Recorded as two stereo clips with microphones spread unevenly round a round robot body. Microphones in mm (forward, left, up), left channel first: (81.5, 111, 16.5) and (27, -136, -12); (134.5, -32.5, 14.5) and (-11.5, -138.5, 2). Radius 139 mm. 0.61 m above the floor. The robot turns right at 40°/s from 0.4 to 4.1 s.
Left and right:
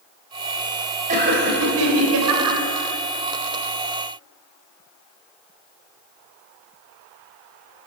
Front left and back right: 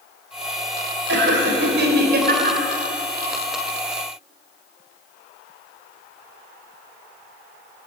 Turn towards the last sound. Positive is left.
turn(degrees=-45)